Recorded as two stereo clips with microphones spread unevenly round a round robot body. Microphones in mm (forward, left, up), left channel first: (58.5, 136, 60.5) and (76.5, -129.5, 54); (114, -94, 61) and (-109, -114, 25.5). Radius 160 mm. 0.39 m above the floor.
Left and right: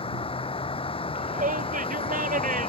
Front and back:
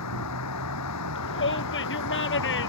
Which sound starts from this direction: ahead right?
A shout, at 1.1 s.